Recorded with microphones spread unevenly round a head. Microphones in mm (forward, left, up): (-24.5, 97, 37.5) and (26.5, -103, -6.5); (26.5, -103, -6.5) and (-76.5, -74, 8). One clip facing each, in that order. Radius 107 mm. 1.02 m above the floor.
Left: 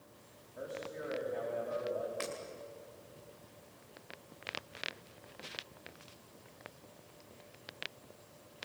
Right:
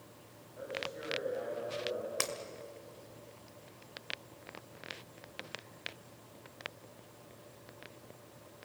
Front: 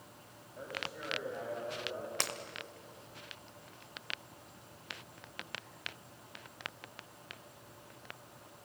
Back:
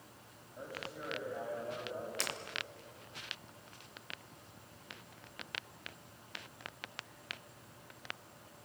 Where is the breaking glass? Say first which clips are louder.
Right 1 dB, front 2 dB; 45° right, 2 m.